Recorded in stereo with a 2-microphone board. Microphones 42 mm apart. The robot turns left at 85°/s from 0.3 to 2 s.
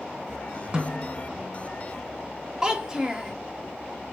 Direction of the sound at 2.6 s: 20° right (ahead or behind).